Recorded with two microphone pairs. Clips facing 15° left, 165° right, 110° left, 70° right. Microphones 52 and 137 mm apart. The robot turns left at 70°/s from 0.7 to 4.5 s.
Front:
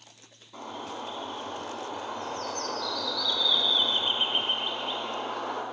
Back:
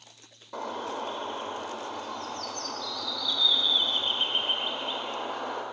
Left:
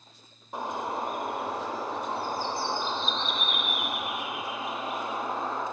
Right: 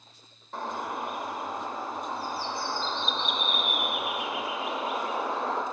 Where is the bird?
175° right, 0.9 m; by 5.6 s 80° right, 0.9 m.